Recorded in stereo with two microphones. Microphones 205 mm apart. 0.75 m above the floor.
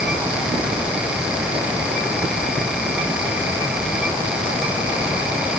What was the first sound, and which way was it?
Only background noise.